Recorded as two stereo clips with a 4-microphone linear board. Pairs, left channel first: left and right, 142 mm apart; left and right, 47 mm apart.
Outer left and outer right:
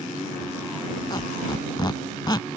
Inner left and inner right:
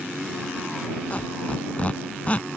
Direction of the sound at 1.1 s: 30° left (ahead or behind).